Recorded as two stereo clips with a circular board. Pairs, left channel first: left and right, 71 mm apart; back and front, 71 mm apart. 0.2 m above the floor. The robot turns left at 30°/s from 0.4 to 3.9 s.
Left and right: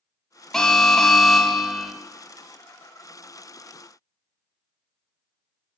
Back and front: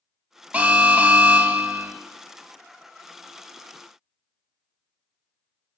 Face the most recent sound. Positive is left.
turn(degrees=-75)